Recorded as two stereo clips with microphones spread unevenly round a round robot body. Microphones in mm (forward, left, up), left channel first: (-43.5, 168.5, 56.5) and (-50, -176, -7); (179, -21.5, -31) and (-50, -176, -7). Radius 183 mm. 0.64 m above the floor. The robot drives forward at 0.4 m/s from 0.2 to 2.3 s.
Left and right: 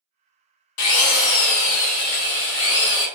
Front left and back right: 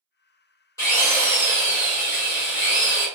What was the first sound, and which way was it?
A drill, 110° left.